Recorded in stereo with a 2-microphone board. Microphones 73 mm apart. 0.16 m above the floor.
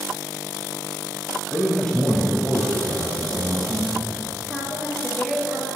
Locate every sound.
1.5 s a man speaking: 15° left (ahead or behind), 3 m; by 4.1 s 5° right (ahead or behind), 5 m
4.5 s a woman speaking: 15° left (ahead or behind), 3.5 m